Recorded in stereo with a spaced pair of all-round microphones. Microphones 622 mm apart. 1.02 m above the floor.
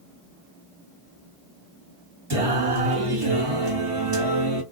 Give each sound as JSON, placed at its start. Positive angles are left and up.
{"t": 2.3, "sound": "singing", "side_deg": -55, "distance_m": 2.5}